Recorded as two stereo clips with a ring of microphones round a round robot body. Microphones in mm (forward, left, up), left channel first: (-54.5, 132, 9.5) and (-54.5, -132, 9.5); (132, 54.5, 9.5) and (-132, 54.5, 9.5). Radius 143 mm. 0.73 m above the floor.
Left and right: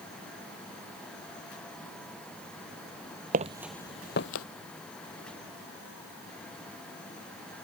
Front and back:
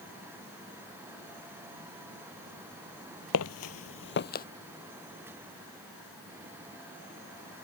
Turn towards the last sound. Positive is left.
turn(degrees=55)